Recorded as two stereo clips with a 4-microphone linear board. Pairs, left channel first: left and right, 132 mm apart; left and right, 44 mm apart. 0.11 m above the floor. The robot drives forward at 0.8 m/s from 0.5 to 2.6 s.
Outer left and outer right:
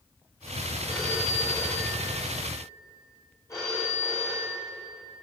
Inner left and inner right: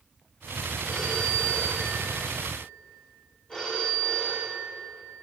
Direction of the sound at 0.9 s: 20° left (ahead or behind).